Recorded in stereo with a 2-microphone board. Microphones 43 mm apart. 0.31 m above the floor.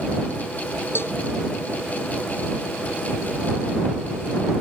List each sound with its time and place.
0.9 s a cowbell: 65° left (ahead or behind)